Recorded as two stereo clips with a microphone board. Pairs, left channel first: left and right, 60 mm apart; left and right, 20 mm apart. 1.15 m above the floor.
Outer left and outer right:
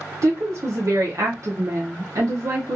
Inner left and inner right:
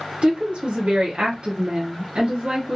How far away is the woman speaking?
About 0.6 m.